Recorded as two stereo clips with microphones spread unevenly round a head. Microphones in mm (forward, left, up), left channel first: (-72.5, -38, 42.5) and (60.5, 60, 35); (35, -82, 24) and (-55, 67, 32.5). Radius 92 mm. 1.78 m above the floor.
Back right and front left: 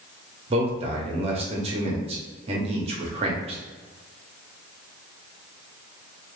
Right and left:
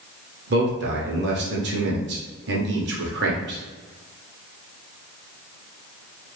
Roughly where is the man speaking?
Left.